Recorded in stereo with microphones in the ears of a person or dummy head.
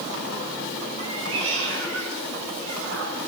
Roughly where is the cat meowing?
Right.